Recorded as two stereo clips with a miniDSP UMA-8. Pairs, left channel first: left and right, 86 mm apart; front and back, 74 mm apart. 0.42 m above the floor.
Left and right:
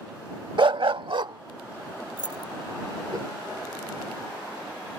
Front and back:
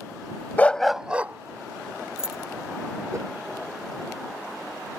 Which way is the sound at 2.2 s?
100° left.